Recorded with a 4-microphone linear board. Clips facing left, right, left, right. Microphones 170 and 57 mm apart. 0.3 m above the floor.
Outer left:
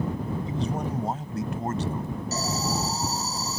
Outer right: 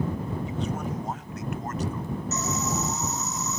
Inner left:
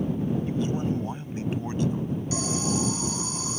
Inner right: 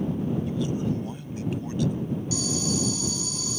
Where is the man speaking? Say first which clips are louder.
Outer left 2 dB, even; 35° left (ahead or behind); by 2.2 s 30° left (ahead or behind).